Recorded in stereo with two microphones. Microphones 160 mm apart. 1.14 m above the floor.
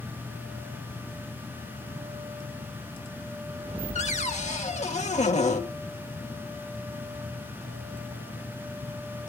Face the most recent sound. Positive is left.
turn(degrees=45)  # may be behind; listen again after turning